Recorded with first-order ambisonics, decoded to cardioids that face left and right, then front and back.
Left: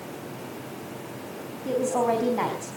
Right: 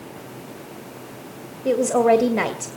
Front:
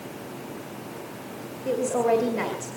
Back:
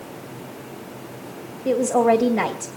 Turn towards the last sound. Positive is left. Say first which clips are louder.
# right 7 dB, back 5 dB
turn(degrees=-105)